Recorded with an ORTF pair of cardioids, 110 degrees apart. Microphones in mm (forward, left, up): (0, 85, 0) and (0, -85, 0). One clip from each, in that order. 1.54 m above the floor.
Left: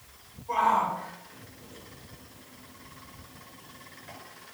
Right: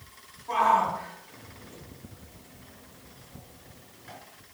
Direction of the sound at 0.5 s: 70° right.